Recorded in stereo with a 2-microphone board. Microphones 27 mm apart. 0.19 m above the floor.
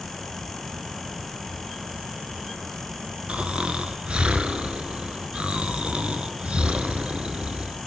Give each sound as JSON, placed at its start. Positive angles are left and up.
{"t": 3.3, "sound": "snoring", "side_deg": -50, "distance_m": 0.9}